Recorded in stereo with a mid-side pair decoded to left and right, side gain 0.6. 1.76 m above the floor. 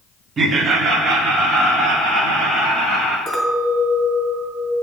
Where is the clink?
25° right, 2 m.